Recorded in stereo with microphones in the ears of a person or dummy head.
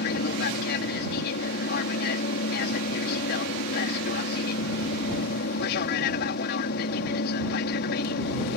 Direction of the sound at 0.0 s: 55° left (ahead or behind).